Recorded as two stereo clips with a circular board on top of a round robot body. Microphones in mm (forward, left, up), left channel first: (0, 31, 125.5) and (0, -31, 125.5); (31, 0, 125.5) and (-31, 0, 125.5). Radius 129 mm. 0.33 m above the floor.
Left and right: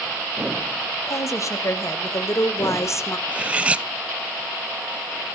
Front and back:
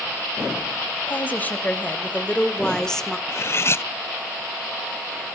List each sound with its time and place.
1.1 s a woman speaking: 60° left, 3 m; by 3.2 s 85° left, 1.6 m
3.3 s cutlery clinking: 25° right, 0.6 m